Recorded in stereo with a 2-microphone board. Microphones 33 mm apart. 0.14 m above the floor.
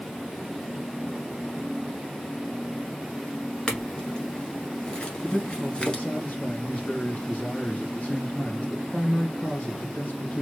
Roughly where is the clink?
Left.